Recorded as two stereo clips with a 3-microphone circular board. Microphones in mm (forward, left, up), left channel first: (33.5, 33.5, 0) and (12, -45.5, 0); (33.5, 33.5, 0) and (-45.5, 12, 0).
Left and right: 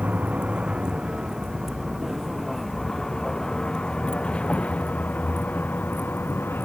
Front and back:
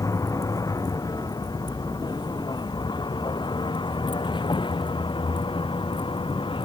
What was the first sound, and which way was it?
A vehicle, 30° right.